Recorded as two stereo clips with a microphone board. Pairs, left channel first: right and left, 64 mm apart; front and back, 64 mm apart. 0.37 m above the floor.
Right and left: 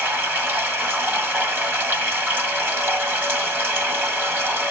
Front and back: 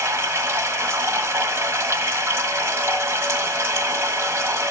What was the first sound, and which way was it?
Running water, 140° left.